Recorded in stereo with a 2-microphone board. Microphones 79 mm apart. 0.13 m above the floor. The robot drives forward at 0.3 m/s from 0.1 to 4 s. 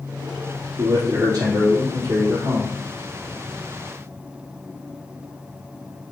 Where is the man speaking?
55° right (ahead or behind), 3.5 m; by 2.8 s 50° right (ahead or behind), 4 m.